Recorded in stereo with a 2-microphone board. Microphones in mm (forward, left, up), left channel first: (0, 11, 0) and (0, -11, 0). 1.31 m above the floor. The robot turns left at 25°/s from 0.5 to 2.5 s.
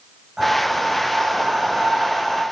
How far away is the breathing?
About 4 m.